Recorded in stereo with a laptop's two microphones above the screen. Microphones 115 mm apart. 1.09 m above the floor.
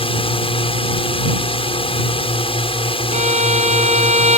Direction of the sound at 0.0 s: 50° left (ahead or behind).